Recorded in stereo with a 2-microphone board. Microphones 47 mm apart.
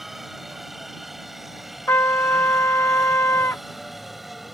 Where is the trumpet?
65° left (ahead or behind).